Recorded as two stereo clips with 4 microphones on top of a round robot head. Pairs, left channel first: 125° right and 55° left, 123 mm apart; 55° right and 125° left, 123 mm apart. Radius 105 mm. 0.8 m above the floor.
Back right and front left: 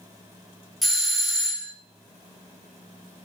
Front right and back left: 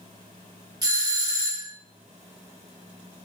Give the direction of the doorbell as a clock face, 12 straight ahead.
7 o'clock.